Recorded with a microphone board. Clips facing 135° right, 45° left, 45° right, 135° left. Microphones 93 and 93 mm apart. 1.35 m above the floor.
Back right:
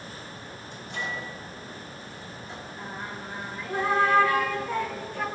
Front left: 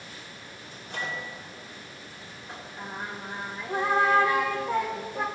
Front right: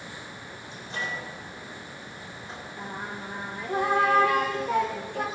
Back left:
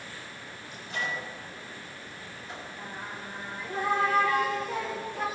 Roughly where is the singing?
Ahead right.